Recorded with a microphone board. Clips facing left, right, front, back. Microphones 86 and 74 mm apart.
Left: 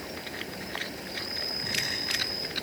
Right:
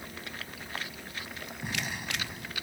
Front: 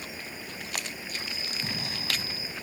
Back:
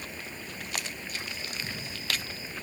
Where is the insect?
80° left.